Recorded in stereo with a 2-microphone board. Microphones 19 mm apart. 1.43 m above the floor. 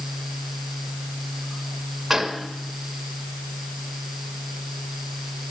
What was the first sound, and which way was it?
A gunshot, 10° right (ahead or behind).